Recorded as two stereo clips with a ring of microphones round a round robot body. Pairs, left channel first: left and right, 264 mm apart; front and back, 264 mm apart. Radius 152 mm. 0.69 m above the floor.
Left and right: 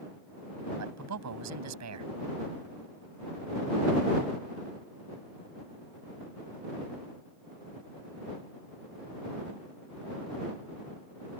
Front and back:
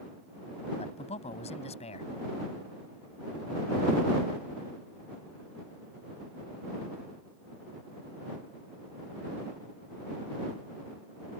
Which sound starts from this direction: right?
A man speaking, at 0.8 s.